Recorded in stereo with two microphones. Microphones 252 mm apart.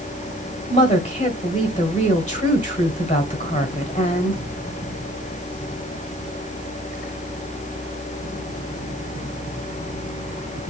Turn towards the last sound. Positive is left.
turn(degrees=30)  # may be behind; listen again after turning